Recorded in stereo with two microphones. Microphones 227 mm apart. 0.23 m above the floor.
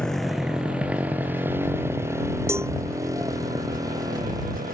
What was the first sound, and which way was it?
A motorcycle, 5° left (ahead or behind).